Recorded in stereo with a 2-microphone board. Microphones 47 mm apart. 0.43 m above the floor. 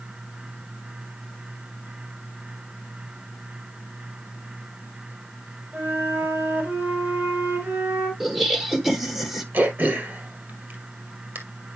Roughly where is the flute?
Right.